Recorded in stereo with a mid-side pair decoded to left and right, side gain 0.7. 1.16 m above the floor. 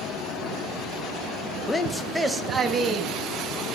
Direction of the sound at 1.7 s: 20° left.